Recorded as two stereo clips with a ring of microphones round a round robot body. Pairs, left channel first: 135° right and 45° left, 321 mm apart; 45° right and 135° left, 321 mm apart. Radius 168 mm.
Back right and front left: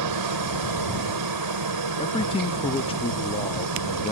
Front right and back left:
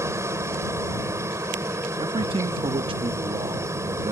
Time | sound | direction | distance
0.0 | a helicopter | 55° left | ?
2.0 | a man speaking | straight behind | ?